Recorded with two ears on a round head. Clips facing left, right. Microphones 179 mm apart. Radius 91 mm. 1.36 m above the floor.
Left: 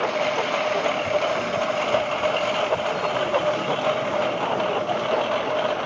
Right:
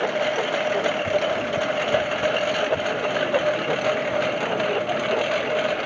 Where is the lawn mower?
10° right (ahead or behind); by 5.9 s 25° right (ahead or behind).